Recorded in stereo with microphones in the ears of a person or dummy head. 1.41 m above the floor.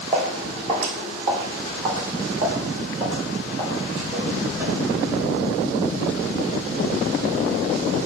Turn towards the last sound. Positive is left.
turn(degrees=-30)  # may be behind; listen again after turning